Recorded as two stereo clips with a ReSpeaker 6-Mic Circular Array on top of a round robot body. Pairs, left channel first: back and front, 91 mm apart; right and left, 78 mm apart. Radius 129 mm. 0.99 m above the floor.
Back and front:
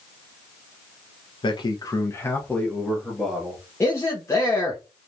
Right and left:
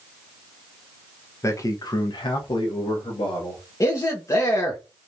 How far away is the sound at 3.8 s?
About 1.1 m.